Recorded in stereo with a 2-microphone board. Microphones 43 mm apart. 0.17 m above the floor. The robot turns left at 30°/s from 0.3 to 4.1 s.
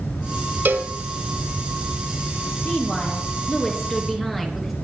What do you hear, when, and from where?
0.7 s a cowbell: 45° right (ahead or behind), 1.3 m; by 0.9 s 55° right (ahead or behind), 1.3 m
2.6 s a woman speaking: 40° left, 4 m; by 4.7 s straight ahead, 4 m